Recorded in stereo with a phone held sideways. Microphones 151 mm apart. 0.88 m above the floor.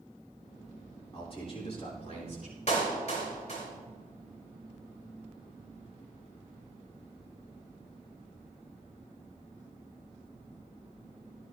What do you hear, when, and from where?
1.1 s a man speaking: 40° left (ahead or behind), 3.5 m; by 2.6 s 55° left (ahead or behind), 3.5 m
2.7 s a clap: 55° left (ahead or behind), 4 m